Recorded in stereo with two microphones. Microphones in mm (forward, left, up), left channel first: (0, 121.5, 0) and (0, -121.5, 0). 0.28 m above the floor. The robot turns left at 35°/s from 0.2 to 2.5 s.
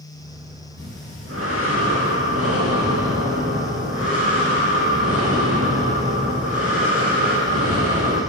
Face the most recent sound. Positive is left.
turn(degrees=-105)